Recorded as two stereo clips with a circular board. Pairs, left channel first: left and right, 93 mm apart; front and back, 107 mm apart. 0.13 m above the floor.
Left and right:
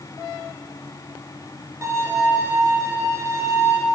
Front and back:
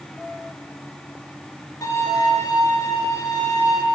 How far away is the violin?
About 1.8 m.